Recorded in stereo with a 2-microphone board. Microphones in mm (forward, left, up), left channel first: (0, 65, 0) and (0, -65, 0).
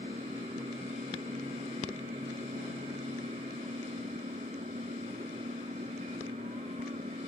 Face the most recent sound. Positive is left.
turn(degrees=-70)  # may be behind; listen again after turning